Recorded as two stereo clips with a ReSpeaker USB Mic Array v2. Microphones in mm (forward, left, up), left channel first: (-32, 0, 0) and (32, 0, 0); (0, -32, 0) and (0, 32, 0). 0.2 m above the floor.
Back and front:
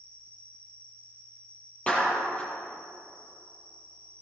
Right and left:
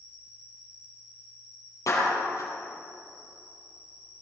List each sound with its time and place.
0.0 s an insect: 115° right, 2 m
1.9 s a clap: 110° right, 5.5 m